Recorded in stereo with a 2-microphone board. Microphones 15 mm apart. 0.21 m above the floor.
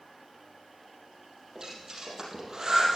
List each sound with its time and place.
1.6 s breathing: 35° right (ahead or behind), 4 m